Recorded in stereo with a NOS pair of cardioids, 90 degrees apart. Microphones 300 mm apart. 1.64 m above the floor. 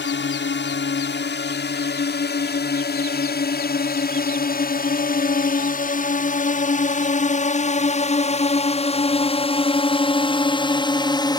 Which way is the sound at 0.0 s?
40° left.